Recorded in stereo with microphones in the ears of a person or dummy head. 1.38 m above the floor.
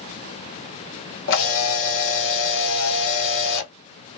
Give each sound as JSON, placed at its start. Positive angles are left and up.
{"t": 1.3, "sound": "a camera shutter", "side_deg": 70, "distance_m": 0.8}